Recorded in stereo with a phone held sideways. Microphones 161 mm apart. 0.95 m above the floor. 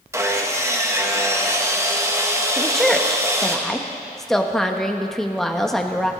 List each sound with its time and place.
0.1 s sawing: 15° right (ahead or behind), 1.4 m
2.6 s a woman speaking: centre (ahead or behind), 1.2 m